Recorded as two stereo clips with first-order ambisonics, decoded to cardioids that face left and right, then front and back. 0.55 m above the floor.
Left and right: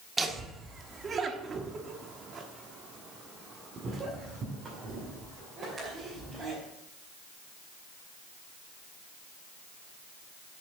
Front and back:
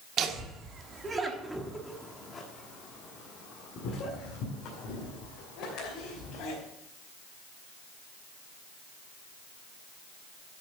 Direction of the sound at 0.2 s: 160° right.